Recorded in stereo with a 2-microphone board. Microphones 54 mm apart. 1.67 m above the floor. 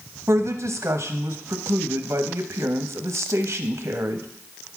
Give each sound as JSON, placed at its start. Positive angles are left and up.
{"t": 0.3, "sound": "a woman speaking", "side_deg": -60, "distance_m": 0.8}